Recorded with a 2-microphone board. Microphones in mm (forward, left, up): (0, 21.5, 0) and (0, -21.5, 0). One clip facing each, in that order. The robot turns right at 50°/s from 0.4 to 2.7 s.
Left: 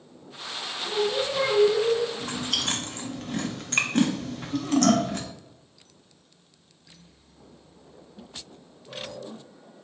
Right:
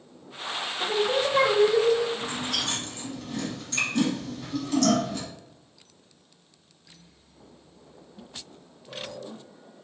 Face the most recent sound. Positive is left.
turn(degrees=55)  # may be behind; listen again after turning